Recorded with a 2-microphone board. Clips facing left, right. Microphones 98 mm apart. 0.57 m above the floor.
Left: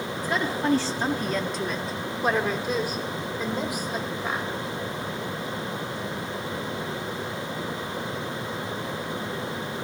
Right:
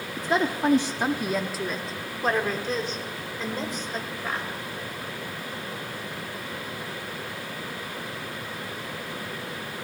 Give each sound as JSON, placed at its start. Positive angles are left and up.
{"t": 0.2, "sound": "a woman speaking", "side_deg": -25, "distance_m": 0.7}